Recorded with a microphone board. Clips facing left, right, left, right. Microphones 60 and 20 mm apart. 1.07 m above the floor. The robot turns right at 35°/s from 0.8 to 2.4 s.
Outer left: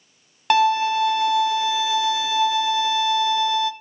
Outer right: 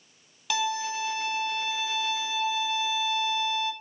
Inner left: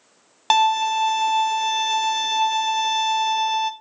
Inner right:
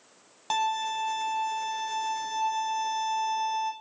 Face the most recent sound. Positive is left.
turn(degrees=105)